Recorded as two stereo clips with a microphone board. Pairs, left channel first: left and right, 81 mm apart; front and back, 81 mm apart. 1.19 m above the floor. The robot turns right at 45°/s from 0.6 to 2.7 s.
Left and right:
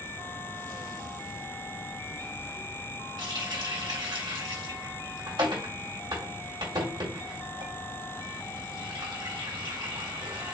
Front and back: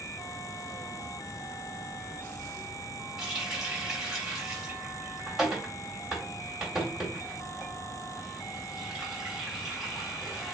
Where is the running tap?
95° right, 2 m.